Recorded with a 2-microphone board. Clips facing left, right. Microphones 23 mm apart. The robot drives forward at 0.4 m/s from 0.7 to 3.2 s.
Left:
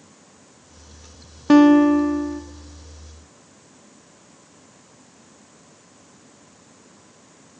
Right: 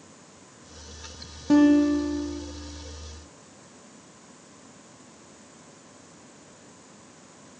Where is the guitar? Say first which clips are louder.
Left 6 dB; 40° left (ahead or behind), 0.6 m; by 2.4 s 50° left (ahead or behind), 0.5 m.